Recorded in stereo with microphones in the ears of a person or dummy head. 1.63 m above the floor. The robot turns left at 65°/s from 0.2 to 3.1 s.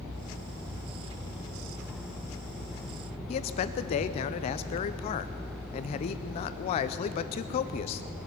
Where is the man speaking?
35° left (ahead or behind), 0.6 m.